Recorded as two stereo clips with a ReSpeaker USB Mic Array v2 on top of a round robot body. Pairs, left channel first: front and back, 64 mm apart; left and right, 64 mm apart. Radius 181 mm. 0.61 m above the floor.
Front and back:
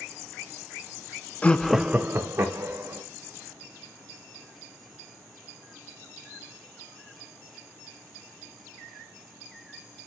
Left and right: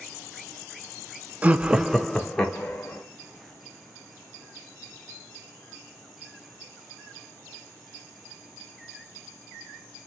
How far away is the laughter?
About 0.6 m.